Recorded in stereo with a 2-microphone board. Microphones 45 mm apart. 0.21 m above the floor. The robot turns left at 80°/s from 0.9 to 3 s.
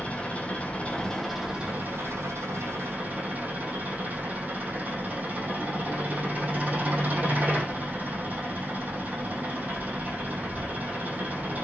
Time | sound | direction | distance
0.0 | an engine running | 30° left | 4 m